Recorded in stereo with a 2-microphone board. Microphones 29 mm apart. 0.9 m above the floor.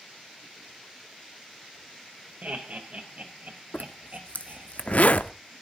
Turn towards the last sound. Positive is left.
turn(degrees=55)  # may be behind; listen again after turning